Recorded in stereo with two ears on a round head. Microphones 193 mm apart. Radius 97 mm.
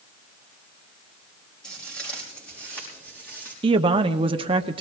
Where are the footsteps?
5° left (ahead or behind), 5 m; by 3.5 s 10° left (ahead or behind), 6 m.